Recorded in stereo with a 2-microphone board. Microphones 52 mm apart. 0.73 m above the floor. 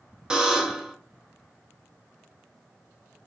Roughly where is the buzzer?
Centre.